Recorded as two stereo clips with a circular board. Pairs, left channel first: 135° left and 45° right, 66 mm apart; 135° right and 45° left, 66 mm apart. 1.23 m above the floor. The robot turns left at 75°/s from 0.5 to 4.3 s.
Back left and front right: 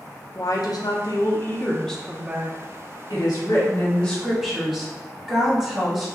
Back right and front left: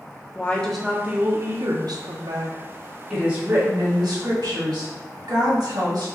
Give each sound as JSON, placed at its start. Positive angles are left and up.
{"t": 0.3, "sound": "a woman speaking", "azimuth_deg": 155, "distance_m": 0.9}
{"t": 3.1, "sound": "a woman speaking", "azimuth_deg": 130, "distance_m": 1.6}